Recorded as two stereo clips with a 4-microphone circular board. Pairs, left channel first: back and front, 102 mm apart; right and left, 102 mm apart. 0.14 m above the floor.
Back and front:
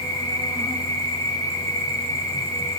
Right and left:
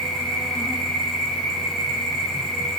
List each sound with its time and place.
0.0 s an insect: 175° left, 1.5 m